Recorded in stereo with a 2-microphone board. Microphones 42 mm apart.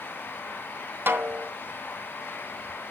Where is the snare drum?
55° right (ahead or behind), 2.5 m.